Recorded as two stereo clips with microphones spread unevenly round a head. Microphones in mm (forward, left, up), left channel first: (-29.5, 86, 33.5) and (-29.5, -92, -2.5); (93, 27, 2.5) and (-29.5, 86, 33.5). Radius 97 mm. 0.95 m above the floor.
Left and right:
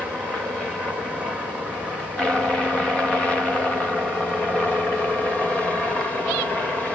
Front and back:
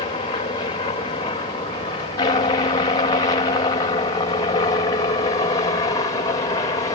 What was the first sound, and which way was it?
A helicopter, 5° right.